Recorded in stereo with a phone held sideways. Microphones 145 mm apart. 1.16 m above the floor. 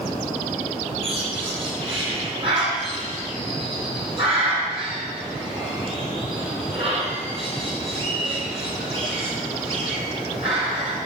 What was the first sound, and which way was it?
A bird, 40° right (ahead or behind).